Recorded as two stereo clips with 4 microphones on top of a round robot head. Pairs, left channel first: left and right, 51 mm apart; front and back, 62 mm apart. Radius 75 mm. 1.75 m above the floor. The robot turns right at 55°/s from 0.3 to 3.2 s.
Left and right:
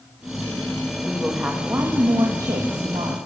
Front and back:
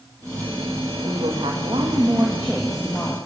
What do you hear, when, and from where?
1.0 s a woman speaking: 175° left, 2 m; by 3.2 s 65° right, 2 m